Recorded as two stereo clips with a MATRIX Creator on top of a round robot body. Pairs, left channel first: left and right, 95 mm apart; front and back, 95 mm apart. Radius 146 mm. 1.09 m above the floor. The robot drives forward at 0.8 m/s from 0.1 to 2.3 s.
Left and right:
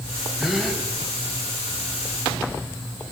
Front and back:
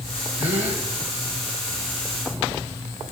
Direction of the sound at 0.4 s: 175° right.